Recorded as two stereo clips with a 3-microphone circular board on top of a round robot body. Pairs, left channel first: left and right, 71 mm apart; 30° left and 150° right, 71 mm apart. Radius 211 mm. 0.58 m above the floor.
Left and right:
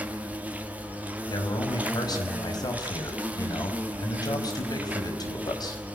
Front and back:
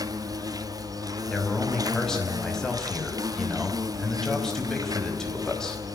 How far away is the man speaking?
About 5 m.